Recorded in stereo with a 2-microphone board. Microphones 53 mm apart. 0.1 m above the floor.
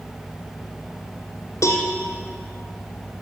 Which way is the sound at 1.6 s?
65° left (ahead or behind).